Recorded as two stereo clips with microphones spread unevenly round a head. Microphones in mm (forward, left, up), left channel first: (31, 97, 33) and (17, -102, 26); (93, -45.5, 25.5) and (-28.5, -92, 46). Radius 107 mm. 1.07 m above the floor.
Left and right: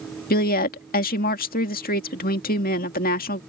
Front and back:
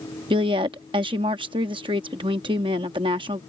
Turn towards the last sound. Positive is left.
turn(degrees=135)